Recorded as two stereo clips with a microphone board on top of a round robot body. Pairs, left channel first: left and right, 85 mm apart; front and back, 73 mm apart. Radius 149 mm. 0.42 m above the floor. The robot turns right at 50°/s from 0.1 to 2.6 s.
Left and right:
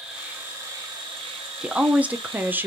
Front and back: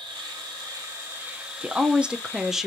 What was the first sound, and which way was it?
An insect, 175° right.